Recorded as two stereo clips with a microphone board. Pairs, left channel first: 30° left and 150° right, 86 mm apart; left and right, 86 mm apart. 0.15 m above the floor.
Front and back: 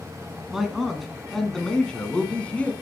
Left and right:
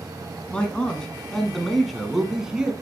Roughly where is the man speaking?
Behind left.